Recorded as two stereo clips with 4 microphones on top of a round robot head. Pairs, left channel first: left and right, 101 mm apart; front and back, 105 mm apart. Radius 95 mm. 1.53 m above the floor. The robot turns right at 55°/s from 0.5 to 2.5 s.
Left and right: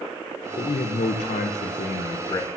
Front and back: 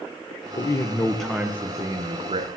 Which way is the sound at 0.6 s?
50° left.